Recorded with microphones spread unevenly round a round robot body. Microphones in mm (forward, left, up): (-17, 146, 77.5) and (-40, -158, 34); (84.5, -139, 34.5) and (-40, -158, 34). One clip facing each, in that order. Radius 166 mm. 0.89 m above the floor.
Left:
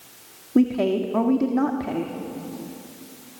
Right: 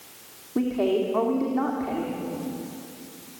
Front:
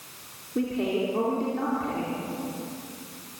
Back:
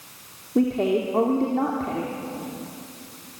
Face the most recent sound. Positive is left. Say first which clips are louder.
# left 4 dB, back 5 dB
turn(degrees=125)